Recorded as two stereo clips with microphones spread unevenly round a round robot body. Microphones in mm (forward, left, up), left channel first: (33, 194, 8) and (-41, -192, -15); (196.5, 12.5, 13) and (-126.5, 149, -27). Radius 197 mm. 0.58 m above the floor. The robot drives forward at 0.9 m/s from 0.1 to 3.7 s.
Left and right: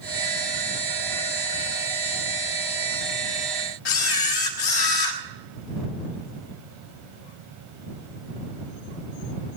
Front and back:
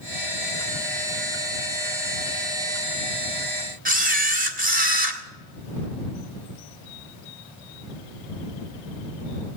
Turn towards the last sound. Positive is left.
turn(degrees=100)